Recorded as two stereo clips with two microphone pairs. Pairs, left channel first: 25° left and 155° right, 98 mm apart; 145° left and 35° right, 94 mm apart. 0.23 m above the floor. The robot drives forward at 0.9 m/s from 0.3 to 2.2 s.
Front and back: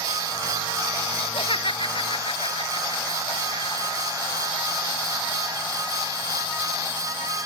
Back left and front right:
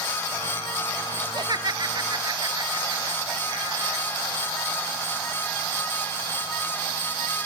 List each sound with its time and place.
1.2 s laughter: 5° left